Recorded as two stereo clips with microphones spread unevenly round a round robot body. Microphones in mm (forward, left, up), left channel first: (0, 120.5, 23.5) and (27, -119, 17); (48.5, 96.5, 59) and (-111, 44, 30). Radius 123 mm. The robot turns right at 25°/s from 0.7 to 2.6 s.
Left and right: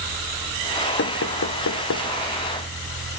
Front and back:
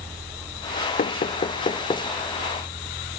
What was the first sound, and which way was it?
Knocking, 65° left.